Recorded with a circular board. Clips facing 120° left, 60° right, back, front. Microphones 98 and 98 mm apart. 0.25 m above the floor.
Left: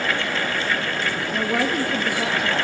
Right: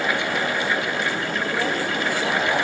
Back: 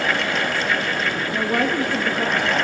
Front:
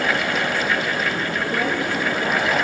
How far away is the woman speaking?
About 5 m.